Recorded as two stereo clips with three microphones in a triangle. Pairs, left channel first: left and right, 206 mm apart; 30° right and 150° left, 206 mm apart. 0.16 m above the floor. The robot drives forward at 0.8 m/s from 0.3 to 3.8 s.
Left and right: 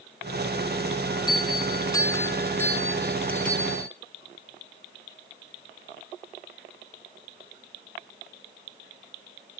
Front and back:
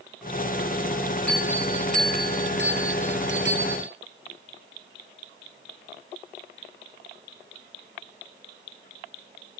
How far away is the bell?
About 0.5 m.